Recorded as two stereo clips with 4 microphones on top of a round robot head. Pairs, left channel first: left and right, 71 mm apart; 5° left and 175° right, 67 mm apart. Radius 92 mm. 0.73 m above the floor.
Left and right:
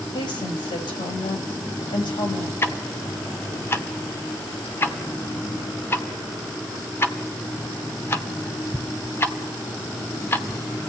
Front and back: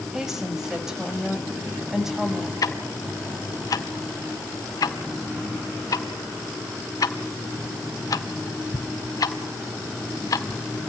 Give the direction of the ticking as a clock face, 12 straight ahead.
11 o'clock.